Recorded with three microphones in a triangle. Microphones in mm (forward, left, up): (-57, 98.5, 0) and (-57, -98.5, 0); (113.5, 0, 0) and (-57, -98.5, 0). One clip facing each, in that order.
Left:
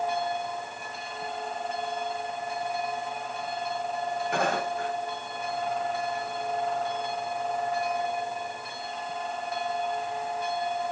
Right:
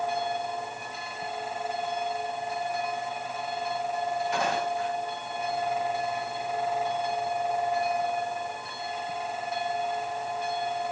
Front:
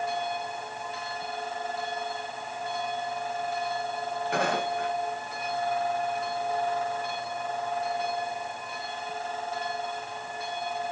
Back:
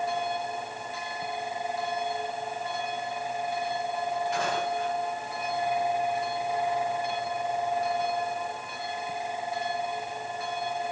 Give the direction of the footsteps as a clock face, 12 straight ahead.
10 o'clock.